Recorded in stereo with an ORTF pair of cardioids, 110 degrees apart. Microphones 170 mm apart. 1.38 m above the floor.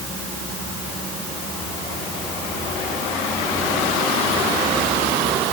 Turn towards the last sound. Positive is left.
No sound to turn to.